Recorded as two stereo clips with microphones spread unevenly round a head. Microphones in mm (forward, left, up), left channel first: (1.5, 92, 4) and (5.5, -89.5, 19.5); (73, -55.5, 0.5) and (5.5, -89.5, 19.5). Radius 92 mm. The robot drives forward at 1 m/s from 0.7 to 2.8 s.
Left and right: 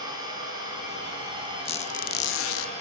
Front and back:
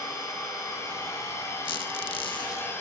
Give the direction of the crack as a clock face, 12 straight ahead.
No crack in this recording.